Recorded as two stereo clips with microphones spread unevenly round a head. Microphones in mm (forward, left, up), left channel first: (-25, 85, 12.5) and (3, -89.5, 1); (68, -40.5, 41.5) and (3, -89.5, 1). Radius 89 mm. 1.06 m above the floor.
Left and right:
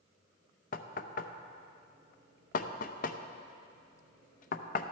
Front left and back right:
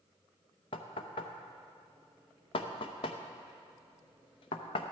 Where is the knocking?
50° left, 0.5 m.